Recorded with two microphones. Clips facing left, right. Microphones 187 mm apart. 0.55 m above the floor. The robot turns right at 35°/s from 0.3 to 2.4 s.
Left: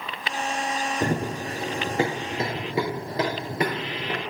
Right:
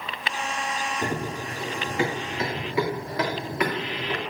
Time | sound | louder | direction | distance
1.0 | running footsteps | left 4 dB | 70° left (ahead or behind) | 1.4 m